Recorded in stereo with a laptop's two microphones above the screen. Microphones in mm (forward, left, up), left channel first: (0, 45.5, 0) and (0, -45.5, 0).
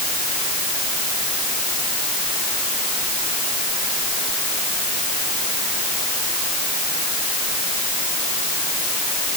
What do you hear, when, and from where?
Only background noise.